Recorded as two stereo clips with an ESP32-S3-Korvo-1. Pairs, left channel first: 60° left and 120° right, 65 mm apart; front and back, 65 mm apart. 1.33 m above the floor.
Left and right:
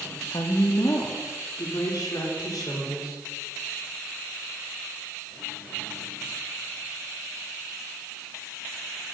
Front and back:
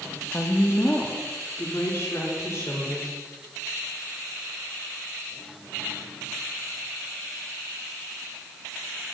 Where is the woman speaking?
60° left, 1.4 m; by 3.2 s 45° left, 4 m.